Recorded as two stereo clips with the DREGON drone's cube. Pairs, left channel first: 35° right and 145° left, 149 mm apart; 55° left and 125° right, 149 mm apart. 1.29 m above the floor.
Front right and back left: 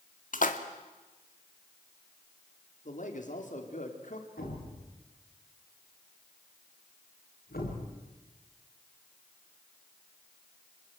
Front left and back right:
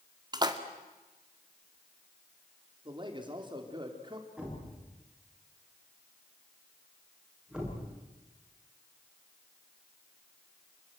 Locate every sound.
0.3 s a splash: 65° right, 1.9 m
2.9 s a man speaking: 65° right, 4.5 m
4.4 s a thud: 40° right, 8 m